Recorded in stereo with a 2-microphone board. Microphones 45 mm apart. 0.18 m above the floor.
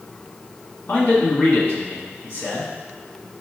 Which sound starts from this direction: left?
A man speaking, at 0.9 s.